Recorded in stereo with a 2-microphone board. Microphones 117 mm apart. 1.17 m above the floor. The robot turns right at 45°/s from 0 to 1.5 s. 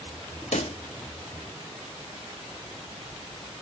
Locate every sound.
0.5 s a pop: 75° left (ahead or behind), 1.2 m; by 0.8 s 65° left (ahead or behind), 1.2 m